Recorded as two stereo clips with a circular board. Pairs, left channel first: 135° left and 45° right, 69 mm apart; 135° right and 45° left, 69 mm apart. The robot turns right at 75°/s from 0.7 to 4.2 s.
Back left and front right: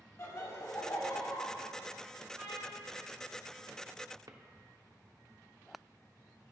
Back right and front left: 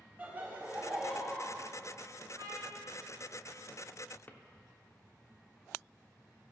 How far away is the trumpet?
About 3 m.